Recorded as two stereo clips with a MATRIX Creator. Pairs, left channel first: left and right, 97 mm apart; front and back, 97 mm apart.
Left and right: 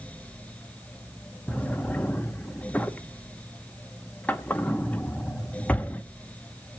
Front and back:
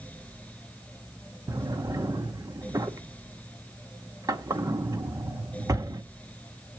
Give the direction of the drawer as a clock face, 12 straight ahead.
7 o'clock.